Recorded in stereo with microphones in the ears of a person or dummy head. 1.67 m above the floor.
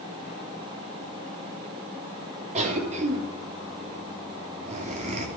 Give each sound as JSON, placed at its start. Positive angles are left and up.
{"t": 2.5, "sound": "a cough", "side_deg": -40, "distance_m": 3.0}